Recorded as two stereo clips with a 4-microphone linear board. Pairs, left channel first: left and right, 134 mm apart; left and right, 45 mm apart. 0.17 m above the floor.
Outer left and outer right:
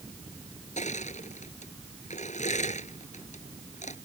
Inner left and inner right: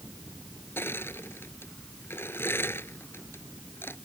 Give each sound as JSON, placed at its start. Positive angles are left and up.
{"t": 0.8, "sound": "crushing", "side_deg": 65}